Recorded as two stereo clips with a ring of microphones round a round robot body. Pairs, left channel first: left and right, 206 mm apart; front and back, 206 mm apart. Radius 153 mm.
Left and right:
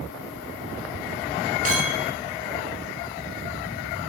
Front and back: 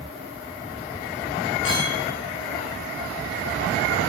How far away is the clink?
About 3 m.